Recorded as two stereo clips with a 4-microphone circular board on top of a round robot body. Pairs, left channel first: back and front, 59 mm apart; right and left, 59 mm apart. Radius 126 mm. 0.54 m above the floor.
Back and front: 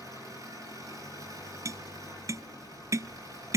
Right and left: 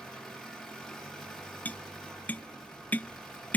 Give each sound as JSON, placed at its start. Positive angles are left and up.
{"t": 0.0, "sound": "an engine running", "azimuth_deg": 0, "distance_m": 9.0}
{"t": 1.6, "sound": "tapping", "azimuth_deg": -30, "distance_m": 0.5}